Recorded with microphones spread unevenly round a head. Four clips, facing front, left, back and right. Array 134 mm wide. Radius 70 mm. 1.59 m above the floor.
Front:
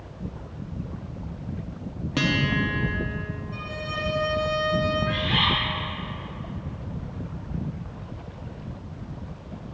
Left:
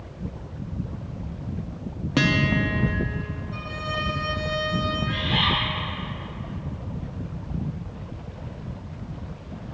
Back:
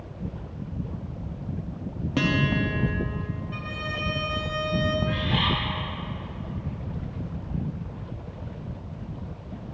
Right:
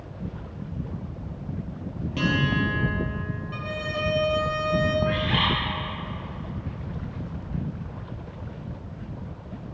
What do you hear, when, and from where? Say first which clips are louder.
2.2 s a guitar: left 2 dB, even; 40° left, 1.1 m
3.5 s a violin: even, front 1 dB; 80° right, 0.9 m
5.1 s a bird: right 1 dB, front 1 dB; 50° right, 2.5 m